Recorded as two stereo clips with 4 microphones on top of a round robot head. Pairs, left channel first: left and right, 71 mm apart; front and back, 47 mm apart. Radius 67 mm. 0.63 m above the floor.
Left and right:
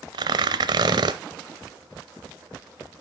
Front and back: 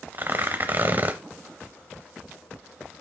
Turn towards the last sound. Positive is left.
turn(degrees=-115)